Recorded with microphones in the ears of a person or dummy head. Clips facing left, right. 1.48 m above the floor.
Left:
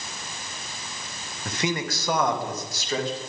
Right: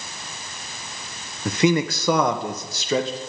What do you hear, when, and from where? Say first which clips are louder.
1.4 s a man speaking: right 9 dB; 65° right (ahead or behind), 1.1 m; by 3.2 s 70° right (ahead or behind), 2.5 m